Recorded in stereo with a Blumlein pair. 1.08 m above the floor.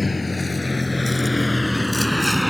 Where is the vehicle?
10° left; by 2.5 s straight ahead.